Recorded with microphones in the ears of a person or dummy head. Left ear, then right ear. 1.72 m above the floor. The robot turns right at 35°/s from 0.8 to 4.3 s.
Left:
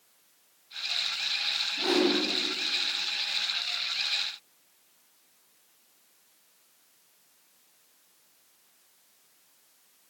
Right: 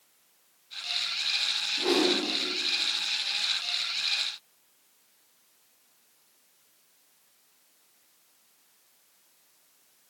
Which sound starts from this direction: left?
A whoosh, at 1.8 s.